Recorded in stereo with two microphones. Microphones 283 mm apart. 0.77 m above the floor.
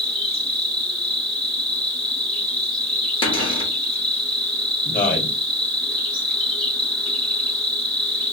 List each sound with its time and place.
0.0 s an insect: centre (ahead or behind), 1.3 m
3.2 s a cupboard door: 20° left (ahead or behind), 0.7 m
4.8 s a man speaking: 30° left (ahead or behind), 0.9 m